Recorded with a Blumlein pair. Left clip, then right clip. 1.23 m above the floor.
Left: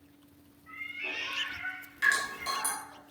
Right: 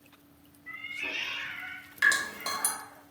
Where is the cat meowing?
60° right, 1.2 m; by 3.0 s 50° right, 2.5 m.